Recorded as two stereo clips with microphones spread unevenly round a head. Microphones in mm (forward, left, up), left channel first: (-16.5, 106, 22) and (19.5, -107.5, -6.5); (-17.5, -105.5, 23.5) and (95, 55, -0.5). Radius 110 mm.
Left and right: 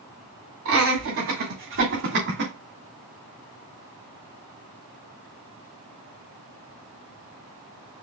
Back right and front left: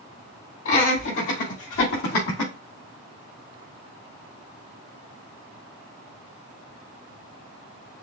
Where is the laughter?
110° right, 2.5 m; by 2.5 s 125° right, 1.4 m.